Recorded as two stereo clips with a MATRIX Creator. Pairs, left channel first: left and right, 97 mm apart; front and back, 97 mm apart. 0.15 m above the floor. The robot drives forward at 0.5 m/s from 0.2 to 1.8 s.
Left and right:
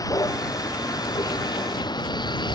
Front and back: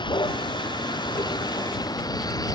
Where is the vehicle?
35° left; by 2.6 s 50° left.